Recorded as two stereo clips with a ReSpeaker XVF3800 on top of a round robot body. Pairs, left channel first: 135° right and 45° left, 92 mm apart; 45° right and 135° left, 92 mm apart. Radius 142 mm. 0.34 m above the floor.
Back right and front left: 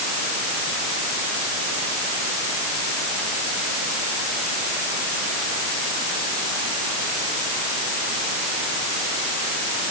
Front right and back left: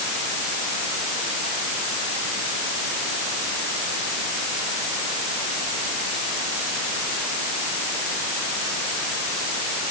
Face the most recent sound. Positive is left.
No sound to turn to.